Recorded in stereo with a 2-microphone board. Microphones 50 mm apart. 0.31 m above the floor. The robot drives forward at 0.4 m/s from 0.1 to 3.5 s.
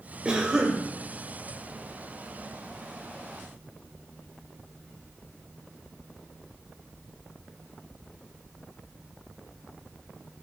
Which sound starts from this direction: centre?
A cough, at 0.2 s.